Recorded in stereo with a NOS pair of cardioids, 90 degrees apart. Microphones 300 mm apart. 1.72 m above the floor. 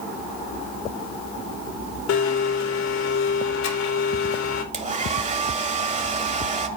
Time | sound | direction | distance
2.1 | a blender | 65° left | 2.5 m
4.7 | a hair dryer | 25° right | 1.8 m